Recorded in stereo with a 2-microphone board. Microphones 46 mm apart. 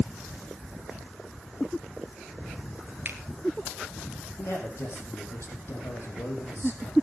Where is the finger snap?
45° right (ahead or behind), 1.9 m.